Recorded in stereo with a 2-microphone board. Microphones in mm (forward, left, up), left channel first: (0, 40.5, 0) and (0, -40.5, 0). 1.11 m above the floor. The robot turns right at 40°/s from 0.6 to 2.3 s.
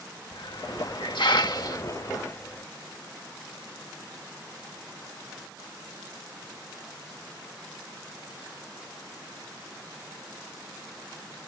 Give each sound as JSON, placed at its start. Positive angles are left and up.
{"t": 0.3, "sound": "a hiss", "side_deg": 75}